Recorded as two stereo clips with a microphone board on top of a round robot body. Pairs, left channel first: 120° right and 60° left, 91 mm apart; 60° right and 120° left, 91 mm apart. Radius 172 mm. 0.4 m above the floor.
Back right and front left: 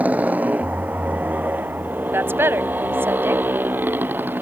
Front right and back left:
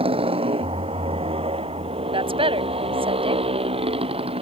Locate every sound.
0.0 s a motorcycle: 135° left; by 4.4 s 130° left
2.1 s a woman speaking: 125° left